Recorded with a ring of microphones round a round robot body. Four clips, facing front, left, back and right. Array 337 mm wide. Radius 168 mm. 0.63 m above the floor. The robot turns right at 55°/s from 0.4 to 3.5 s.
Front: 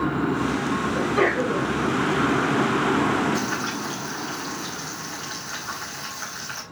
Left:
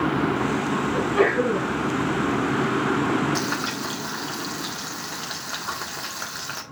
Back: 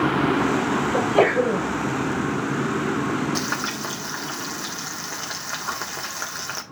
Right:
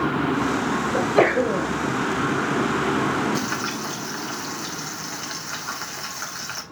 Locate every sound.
0.9 s a sneeze: 140° right, 3 m; by 1.6 s 100° right, 3 m
3.4 s frying: 150° left, 1.7 m; by 6.6 s 155° left, 1.7 m